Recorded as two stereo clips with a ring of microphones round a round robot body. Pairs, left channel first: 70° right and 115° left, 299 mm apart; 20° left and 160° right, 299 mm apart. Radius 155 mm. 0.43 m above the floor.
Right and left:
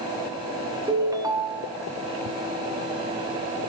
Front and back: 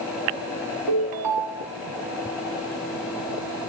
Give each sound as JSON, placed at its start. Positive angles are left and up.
{"t": 0.9, "sound": "a ringtone", "azimuth_deg": -170, "distance_m": 3.5}